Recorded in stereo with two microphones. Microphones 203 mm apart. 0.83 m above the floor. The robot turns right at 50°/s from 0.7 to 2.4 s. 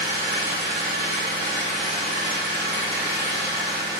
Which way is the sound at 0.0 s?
70° left.